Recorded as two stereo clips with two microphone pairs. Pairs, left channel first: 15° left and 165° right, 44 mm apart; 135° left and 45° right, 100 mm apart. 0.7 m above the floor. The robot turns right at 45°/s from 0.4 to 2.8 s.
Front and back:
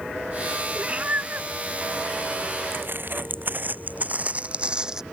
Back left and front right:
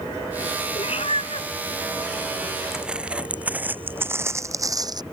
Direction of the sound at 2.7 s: 135° right.